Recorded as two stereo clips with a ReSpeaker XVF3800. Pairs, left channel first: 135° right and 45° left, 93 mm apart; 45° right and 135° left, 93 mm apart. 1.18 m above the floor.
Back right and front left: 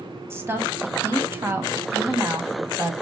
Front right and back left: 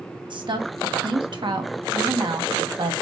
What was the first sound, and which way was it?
A woman speaking, 105° left.